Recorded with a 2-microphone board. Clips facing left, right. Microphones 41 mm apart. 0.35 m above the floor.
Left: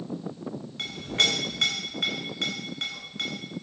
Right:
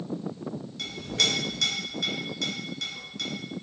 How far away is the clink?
About 1.0 m.